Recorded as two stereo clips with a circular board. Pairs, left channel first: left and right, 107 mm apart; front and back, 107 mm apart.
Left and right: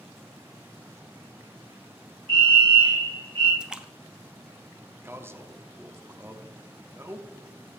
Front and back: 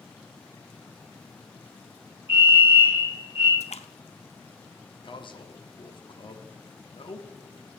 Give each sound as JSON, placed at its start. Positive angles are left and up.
{"t": 2.3, "sound": "a fire alarm", "azimuth_deg": -115, "distance_m": 3.5}
{"t": 3.6, "sound": "a splash", "azimuth_deg": -10, "distance_m": 0.7}
{"t": 5.0, "sound": "a man speaking", "azimuth_deg": -25, "distance_m": 0.9}